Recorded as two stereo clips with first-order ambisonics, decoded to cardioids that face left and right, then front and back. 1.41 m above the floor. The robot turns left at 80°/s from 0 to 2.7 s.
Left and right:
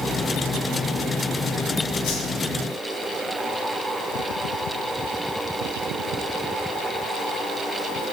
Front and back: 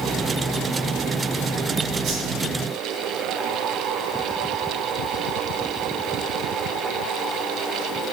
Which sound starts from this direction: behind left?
A whoosh, at 2.0 s.